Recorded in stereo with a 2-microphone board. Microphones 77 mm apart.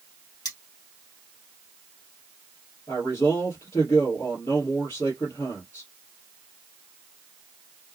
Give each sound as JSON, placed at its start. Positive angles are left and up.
{"t": 0.5, "sound": "cutlery clinking", "side_deg": 65, "distance_m": 2.0}
{"t": 2.9, "sound": "a man speaking", "side_deg": 50, "distance_m": 2.0}